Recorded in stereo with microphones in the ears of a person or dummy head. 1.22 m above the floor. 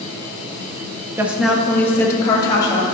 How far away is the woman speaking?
About 0.7 m.